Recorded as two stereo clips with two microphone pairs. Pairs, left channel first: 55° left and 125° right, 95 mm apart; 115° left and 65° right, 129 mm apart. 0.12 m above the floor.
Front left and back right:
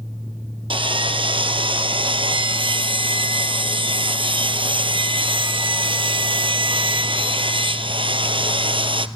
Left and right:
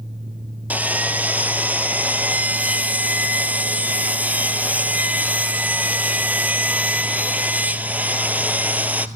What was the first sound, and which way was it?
Sawing, 140° right.